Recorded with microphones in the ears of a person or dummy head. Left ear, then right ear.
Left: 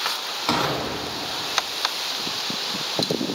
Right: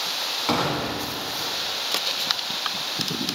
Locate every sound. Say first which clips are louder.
0.5 s an explosion: left 3 dB; 20° left (ahead or behind), 2 m